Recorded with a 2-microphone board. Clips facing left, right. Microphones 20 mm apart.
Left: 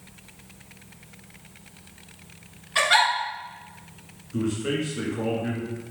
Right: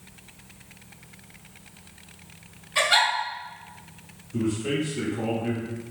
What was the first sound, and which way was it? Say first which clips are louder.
A giggle: left 1 dB; 30° left (ahead or behind).